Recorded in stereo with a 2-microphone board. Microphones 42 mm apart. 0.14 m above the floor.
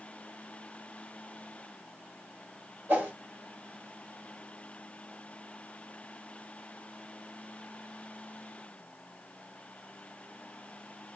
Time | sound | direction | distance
2.9 | a whoosh | 50° right (ahead or behind) | 1.7 m